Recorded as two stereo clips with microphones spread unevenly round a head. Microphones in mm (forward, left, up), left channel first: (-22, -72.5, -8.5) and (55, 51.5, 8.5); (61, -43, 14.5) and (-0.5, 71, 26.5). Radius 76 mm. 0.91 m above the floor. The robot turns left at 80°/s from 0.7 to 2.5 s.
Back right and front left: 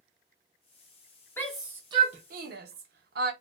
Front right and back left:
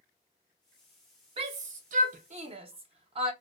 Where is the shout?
165° left, 0.8 m; by 3.3 s 75° left, 0.8 m.